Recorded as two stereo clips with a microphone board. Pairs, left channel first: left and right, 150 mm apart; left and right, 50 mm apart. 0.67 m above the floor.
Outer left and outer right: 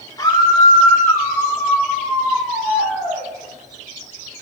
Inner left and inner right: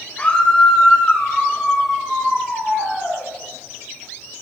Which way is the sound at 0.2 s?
30° left (ahead or behind).